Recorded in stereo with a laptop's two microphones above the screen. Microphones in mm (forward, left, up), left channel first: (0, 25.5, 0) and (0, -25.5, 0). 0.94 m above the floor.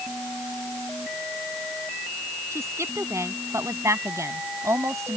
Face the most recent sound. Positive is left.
turn(degrees=-70)  # may be behind; listen again after turning